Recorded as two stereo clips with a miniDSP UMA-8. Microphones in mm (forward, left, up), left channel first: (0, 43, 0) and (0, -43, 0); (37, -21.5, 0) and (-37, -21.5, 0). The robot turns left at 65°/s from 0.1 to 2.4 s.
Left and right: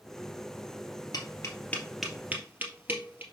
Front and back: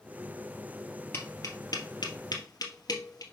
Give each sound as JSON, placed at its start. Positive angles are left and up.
{"t": 1.1, "sound": "tapping", "azimuth_deg": 55, "distance_m": 2.0}